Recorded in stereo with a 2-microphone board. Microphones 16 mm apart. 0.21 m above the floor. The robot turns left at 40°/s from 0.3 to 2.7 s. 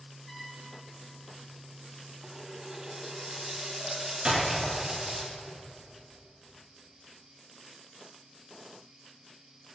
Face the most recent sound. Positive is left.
turn(degrees=-65)  # may be behind; listen again after turning